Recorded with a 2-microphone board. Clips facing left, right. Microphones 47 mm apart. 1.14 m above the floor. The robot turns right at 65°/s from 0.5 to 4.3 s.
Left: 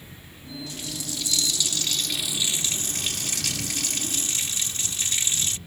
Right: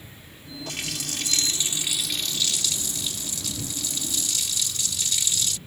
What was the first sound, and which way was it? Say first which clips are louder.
A running tap: right 4 dB; 95° right.